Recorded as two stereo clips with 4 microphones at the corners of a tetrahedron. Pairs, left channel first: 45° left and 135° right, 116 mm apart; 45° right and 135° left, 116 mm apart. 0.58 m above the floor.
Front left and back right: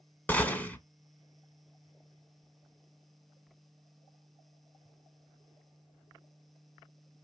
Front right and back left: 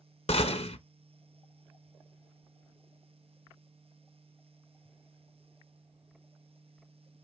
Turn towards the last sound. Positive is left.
turn(degrees=-30)